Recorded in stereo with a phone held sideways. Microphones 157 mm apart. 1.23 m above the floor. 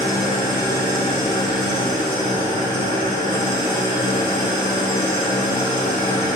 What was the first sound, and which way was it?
An engine running, 25° left (ahead or behind).